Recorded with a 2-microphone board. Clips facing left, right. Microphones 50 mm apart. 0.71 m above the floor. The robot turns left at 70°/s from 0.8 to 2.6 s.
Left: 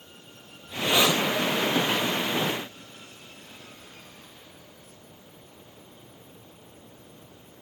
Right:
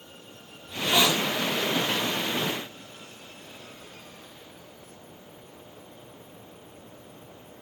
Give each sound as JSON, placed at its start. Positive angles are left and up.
{"t": 0.7, "sound": "a hiss", "azimuth_deg": 175, "distance_m": 1.4}